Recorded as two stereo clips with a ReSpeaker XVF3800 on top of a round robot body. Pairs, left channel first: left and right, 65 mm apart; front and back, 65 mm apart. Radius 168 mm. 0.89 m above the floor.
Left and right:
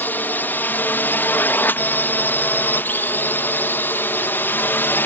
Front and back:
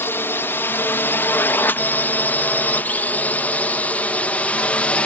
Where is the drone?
40° left; by 5.1 s 55° left.